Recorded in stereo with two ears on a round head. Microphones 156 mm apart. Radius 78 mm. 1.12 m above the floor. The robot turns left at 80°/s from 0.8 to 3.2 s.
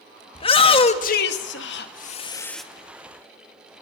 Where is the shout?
145° left, 2 m; by 2.6 s straight ahead, 2 m.